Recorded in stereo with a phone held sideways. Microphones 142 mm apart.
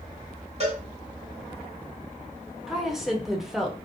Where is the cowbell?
45° right (ahead or behind), 1.2 m.